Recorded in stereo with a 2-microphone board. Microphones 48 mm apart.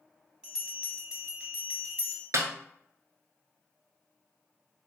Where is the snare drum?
60° right (ahead or behind), 0.6 m.